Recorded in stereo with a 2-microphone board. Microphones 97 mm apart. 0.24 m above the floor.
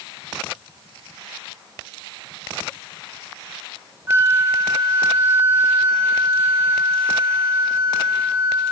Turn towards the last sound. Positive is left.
turn(degrees=-25)  # may be behind; listen again after turning